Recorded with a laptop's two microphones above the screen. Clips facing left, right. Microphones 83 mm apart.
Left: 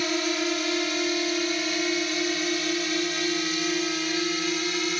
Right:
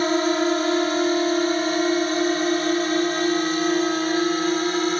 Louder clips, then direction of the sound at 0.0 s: Right 7 dB; 40° right (ahead or behind).